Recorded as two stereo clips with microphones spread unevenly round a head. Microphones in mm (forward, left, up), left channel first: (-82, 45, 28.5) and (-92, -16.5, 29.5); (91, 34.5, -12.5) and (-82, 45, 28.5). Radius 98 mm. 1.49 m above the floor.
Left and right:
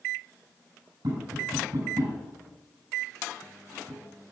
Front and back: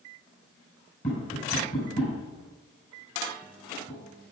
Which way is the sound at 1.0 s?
60° right.